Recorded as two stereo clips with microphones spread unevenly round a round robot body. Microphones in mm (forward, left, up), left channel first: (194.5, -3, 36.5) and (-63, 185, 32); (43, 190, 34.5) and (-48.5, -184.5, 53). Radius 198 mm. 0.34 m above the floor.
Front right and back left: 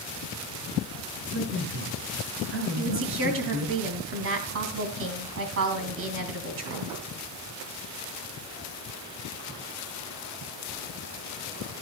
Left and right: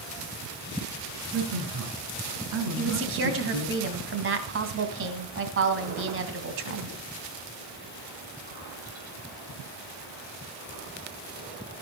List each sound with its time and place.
1.3 s a man speaking: 150° right, 5.5 m
2.8 s a woman speaking: 160° right, 2.5 m